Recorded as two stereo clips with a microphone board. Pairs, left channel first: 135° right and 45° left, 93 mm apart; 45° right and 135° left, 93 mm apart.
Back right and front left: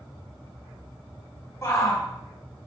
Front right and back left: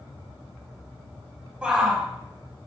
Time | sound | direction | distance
1.6 | a shout | 155° right | 1.3 m